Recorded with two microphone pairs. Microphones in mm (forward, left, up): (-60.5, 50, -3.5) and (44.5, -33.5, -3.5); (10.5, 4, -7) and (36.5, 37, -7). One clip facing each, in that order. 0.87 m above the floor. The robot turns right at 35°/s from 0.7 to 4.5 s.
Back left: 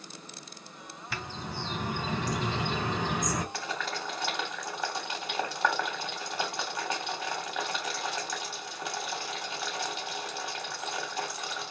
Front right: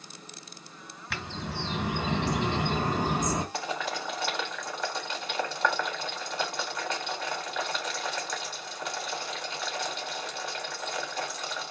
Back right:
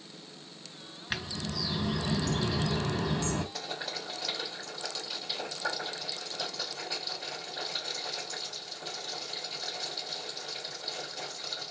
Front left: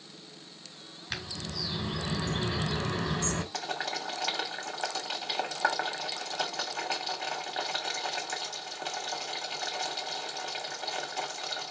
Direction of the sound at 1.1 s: 60° right.